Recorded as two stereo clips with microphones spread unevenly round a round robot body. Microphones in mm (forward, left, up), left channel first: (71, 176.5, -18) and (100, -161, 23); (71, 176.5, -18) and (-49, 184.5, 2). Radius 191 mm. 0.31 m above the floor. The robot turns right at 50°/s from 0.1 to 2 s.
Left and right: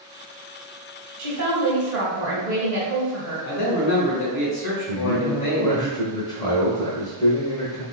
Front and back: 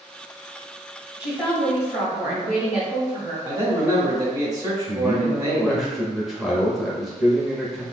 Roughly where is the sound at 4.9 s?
Ahead left.